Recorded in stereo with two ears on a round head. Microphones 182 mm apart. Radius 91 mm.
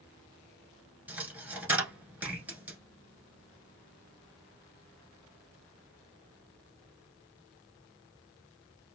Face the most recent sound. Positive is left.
turn(degrees=-5)  # may be behind; listen again after turning